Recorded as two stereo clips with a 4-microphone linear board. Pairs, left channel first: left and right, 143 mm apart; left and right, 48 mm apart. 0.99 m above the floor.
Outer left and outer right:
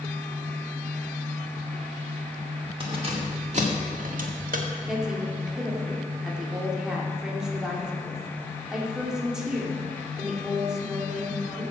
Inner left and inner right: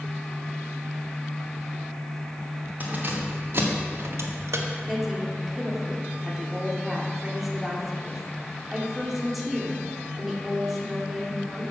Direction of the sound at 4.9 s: 5° right (ahead or behind).